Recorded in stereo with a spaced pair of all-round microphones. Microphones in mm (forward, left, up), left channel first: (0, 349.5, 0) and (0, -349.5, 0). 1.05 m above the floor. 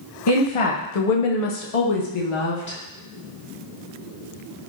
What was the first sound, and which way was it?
A woman speaking, 40° left (ahead or behind).